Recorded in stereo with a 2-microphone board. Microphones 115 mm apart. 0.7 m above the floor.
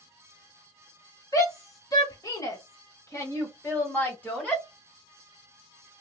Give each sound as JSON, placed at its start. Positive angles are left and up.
{"t": 1.3, "sound": "a shout", "side_deg": 30, "distance_m": 1.5}